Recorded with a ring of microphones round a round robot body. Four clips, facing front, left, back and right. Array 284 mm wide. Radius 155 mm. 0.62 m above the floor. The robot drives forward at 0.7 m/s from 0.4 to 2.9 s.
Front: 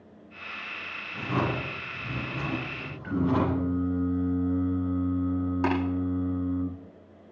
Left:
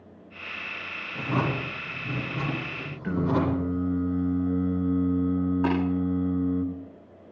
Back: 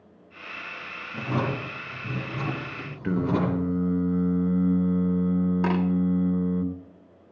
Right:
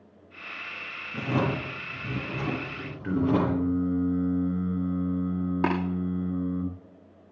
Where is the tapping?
100° right, 9 m.